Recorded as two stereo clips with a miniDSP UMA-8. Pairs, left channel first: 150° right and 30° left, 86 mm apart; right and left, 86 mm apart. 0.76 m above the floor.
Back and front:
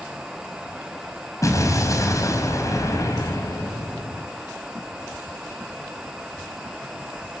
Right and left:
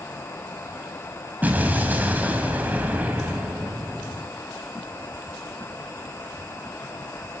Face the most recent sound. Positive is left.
turn(degrees=160)